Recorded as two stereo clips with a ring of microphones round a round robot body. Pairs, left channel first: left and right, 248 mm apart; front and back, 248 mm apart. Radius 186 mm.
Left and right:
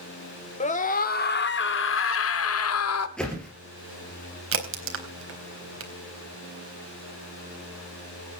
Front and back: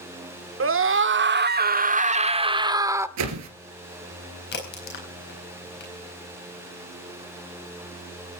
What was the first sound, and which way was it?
A scream, 155° left.